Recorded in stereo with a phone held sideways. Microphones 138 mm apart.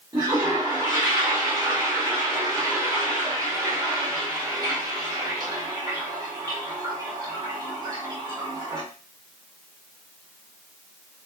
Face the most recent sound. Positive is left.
turn(degrees=-30)  # may be behind; listen again after turning